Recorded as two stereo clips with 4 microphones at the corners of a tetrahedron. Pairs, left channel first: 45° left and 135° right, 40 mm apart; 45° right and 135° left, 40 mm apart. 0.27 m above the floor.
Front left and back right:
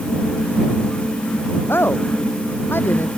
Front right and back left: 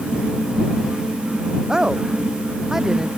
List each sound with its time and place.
1.7 s a woman speaking: 60° left; by 3.1 s 55° left